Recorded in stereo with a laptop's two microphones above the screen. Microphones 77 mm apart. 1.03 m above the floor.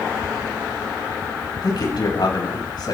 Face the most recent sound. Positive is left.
turn(degrees=70)  # may be behind; listen again after turning